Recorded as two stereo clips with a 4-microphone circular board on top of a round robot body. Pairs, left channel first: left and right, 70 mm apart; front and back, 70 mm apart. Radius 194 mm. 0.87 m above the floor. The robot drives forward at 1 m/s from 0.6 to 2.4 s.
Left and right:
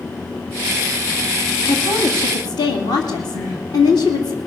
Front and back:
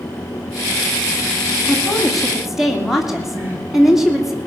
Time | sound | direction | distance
1.7 | a woman speaking | 80° left | 3 m
3.3 | crying | 120° left | 6.5 m